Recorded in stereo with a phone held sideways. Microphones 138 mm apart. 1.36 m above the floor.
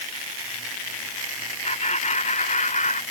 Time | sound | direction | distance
1.6 | laughter | 55° left (ahead or behind) | ?